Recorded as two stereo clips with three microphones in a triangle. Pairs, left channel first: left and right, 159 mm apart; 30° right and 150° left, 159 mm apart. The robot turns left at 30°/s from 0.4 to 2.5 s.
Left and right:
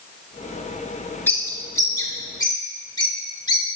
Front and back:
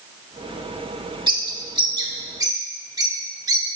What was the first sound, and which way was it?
A bird, 155° left.